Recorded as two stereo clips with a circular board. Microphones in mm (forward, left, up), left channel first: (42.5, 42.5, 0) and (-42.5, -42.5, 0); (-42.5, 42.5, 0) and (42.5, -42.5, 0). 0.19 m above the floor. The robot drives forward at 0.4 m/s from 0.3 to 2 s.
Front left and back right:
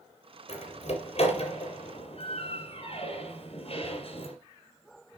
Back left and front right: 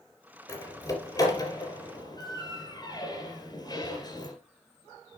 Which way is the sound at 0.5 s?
70° left.